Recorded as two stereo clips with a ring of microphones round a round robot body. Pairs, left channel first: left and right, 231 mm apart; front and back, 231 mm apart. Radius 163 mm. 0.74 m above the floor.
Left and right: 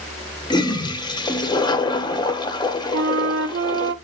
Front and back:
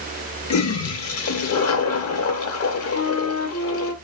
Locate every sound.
0.5 s a toilet flushing: 15° left, 0.7 m
2.9 s a flute: 50° right, 0.5 m